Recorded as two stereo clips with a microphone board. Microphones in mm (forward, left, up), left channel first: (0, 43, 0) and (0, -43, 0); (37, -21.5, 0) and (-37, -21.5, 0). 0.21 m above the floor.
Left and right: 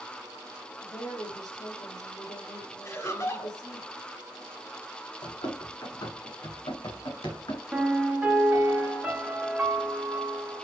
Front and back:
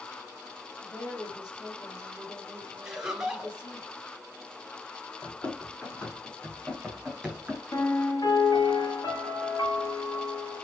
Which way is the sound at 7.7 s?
15° right.